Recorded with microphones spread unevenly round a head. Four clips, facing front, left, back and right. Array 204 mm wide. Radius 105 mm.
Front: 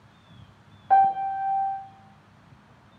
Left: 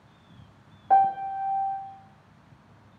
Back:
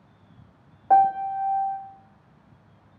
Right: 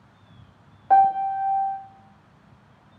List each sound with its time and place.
0.9 s a piano: straight behind, 0.6 m